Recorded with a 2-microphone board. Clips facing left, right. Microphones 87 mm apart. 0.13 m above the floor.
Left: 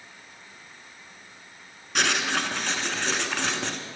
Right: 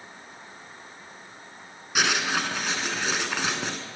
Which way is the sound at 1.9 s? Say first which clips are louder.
Even; 5° right (ahead or behind).